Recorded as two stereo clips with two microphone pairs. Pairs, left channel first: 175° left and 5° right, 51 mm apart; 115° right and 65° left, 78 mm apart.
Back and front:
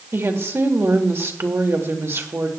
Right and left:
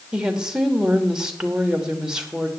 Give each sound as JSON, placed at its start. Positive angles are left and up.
{"t": 0.1, "sound": "a woman speaking", "azimuth_deg": -15, "distance_m": 1.3}